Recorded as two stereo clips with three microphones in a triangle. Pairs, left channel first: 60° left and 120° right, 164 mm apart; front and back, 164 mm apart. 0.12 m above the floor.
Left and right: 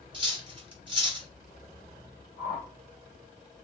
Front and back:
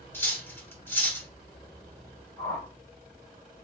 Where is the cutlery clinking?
70° right, 1.3 m.